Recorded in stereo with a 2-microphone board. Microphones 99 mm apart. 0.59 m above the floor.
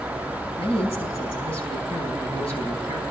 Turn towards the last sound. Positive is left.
turn(degrees=75)  # may be behind; listen again after turning